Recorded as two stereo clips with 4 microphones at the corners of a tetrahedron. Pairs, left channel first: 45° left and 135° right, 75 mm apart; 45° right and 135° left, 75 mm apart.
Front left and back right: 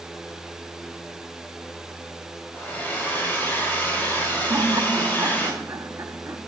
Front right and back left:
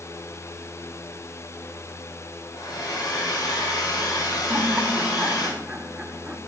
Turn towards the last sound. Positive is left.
turn(degrees=-160)